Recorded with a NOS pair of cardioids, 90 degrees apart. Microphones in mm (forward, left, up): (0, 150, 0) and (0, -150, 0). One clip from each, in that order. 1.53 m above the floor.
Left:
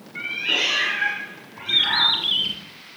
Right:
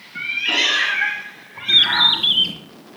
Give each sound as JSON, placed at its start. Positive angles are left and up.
{"t": 0.1, "sound": "a cat meowing", "azimuth_deg": -45, "distance_m": 4.0}
{"t": 1.7, "sound": "a bird", "azimuth_deg": -35, "distance_m": 3.0}